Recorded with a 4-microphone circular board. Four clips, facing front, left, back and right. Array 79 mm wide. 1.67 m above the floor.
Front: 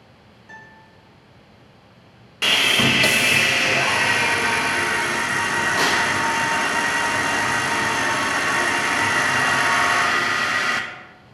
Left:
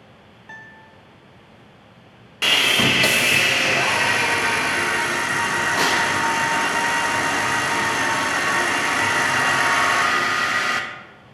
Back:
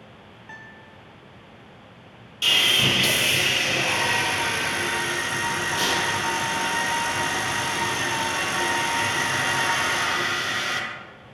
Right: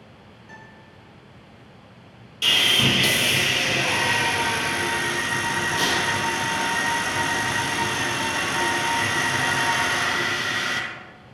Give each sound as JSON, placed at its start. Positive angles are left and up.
{"t": 0.5, "sound": "a guitar", "azimuth_deg": 120, "distance_m": 1.9}
{"t": 2.4, "sound": "sawing", "azimuth_deg": 50, "distance_m": 0.9}